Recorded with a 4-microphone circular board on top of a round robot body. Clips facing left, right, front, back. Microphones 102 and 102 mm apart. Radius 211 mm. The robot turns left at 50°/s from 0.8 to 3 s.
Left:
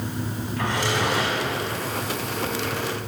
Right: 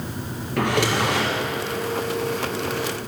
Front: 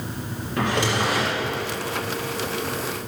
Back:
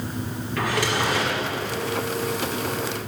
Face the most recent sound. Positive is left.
turn(degrees=-175)